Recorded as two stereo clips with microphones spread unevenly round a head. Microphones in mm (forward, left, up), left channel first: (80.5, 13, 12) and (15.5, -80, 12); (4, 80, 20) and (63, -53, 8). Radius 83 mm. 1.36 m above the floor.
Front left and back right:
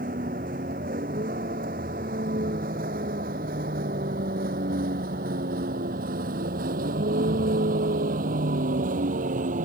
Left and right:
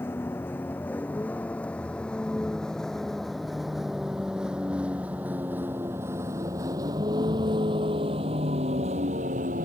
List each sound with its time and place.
0.0 s a vehicle: 165° right; by 9.7 s 115° right